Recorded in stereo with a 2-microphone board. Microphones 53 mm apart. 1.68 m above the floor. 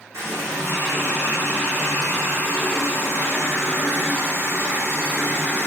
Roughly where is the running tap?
Right.